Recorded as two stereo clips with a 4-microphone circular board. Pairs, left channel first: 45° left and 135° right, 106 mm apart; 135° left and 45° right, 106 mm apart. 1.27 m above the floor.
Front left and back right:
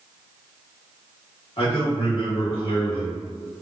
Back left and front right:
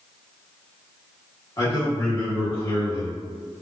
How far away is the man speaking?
About 1.7 m.